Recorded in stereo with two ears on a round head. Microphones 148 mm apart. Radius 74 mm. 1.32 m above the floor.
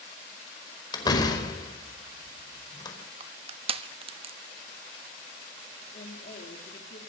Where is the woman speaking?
45° left (ahead or behind), 3.5 m.